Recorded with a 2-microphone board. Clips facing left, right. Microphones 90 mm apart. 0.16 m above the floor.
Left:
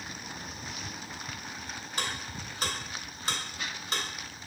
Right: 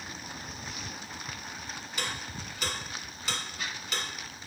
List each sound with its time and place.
2.0 s ticking: 35° left (ahead or behind), 1.5 m